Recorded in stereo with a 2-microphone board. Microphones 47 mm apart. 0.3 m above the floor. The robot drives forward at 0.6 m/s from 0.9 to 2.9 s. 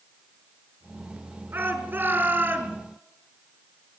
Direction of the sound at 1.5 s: 45° right (ahead or behind).